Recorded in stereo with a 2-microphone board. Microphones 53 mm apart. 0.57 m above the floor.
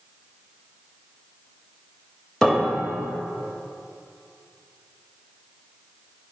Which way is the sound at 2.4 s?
10° left (ahead or behind).